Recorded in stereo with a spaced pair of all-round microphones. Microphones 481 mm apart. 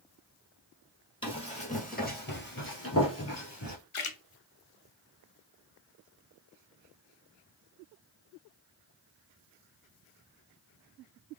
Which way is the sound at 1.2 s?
10° left (ahead or behind).